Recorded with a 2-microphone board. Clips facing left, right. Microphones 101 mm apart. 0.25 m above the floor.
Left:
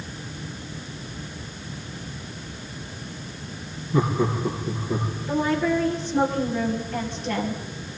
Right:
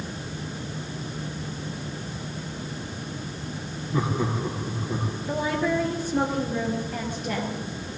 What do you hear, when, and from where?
3.9 s laughter: 5° right (ahead or behind), 8.5 m
5.3 s a woman speaking: 10° right (ahead or behind), 6 m